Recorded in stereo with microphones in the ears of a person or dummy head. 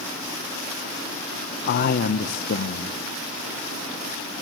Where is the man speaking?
55° left (ahead or behind), 1.1 m.